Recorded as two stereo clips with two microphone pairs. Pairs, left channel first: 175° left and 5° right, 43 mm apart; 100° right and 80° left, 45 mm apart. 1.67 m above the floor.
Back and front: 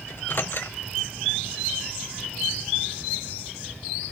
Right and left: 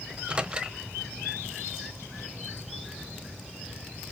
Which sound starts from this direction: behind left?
A microwave, at 0.1 s.